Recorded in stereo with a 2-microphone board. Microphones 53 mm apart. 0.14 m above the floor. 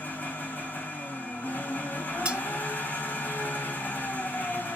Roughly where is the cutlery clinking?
Right.